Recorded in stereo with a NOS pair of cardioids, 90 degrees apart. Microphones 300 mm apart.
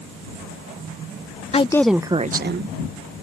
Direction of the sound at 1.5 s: 20° left.